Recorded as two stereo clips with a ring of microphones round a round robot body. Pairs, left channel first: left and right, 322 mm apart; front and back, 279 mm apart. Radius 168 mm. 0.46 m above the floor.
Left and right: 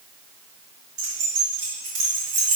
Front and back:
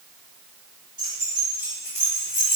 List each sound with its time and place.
1.0 s keys jangling: 100° right, 5 m; by 2.6 s 90° right, 5.5 m